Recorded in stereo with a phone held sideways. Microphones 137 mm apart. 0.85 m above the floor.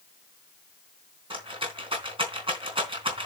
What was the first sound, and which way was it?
A rattle, 40° right (ahead or behind).